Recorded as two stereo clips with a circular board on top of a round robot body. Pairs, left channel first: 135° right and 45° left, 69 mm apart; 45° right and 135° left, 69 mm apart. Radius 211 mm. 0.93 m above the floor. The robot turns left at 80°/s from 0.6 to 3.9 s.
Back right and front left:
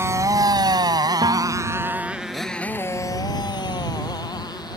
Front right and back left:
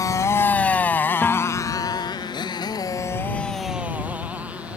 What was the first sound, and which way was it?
A motorcycle, 5° right.